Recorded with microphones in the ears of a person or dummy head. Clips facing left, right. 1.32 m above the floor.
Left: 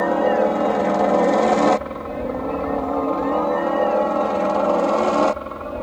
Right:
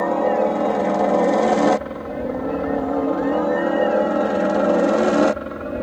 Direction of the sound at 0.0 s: Centre (ahead or behind).